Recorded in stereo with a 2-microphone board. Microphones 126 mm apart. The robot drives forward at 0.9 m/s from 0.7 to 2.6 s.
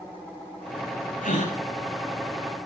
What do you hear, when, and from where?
1.2 s a gasp: 85° left, 5.5 m